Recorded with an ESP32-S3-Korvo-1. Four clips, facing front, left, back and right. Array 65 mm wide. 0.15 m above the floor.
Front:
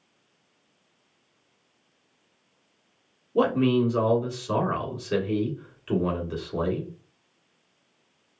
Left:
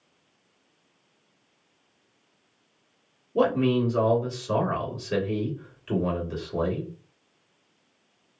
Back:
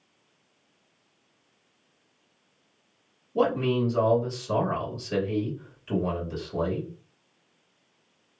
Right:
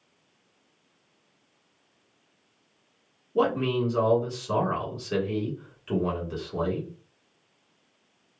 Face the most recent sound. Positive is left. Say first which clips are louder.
# left 2 dB, front 3 dB
turn(degrees=-5)